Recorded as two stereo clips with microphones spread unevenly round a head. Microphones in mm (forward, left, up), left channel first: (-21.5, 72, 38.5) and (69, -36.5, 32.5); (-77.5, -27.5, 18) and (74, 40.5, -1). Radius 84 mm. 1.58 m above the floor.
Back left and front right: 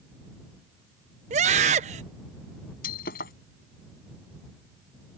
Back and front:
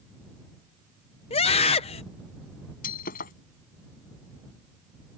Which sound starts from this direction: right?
A scream, at 1.3 s.